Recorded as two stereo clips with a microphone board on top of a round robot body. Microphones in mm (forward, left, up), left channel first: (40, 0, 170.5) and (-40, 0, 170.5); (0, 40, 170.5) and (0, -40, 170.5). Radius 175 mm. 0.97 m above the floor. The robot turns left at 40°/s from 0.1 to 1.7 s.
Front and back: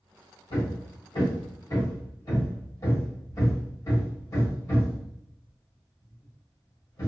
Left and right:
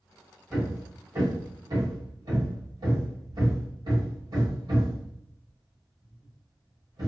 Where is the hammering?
5° right, 1.4 m; by 7.1 s 55° right, 1.4 m.